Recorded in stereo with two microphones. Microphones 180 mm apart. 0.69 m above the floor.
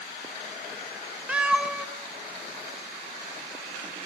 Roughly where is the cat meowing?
Centre.